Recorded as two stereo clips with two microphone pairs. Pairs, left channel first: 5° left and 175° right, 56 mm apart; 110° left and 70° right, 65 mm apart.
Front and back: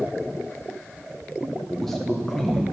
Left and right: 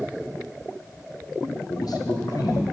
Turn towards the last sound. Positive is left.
turn(degrees=95)